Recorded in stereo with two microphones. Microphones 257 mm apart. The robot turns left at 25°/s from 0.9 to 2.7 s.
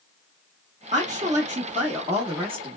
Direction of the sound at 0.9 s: 30° right (ahead or behind).